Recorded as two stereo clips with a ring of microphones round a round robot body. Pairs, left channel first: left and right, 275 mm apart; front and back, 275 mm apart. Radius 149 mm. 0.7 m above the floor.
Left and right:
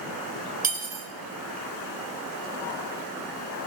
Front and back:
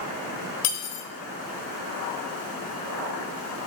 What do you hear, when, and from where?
0.6 s cutlery clinking: 30° right, 1.6 m